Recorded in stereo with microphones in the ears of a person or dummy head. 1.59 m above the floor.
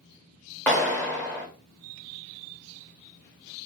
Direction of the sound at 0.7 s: 5° left (ahead or behind).